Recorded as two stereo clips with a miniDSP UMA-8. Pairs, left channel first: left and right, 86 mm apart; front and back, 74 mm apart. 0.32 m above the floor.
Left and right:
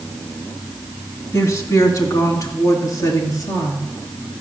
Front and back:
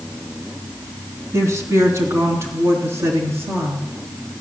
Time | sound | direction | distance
1.3 | a woman speaking | 135° left | 2.5 m